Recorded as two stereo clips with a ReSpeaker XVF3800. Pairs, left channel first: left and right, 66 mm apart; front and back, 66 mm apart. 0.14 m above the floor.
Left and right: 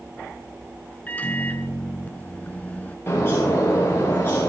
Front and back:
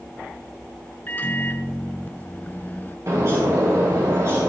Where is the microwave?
40° left, 1.1 m.